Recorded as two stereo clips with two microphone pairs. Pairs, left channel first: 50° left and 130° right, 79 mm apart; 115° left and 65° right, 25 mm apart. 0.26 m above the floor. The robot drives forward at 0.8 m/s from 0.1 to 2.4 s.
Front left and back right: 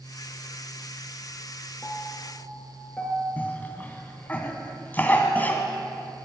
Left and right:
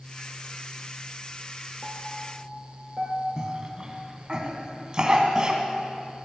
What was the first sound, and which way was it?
A piano, 15° right.